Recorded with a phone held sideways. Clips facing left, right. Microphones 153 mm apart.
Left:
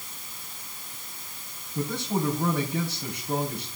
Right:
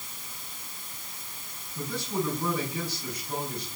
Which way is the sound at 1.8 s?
60° left (ahead or behind).